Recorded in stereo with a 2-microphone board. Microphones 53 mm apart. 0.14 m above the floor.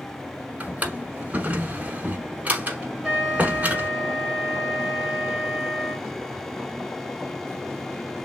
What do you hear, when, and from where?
0.6 s a drawer: 25° right (ahead or behind), 0.8 m
3.0 s a trumpet: 5° right (ahead or behind), 1.7 m